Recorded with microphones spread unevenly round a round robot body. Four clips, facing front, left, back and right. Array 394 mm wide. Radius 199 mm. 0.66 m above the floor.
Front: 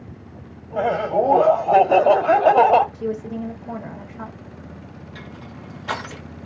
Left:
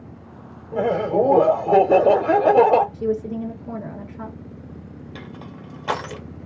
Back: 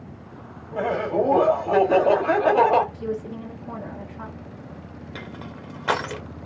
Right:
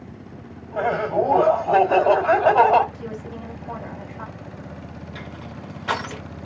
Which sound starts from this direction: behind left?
Crushing, at 5.2 s.